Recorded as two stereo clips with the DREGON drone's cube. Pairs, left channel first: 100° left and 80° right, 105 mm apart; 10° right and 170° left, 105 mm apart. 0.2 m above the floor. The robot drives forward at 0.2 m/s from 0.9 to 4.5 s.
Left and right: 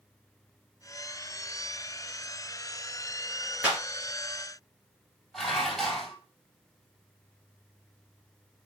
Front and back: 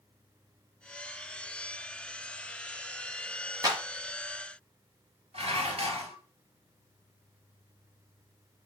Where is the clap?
150° right, 1.8 m.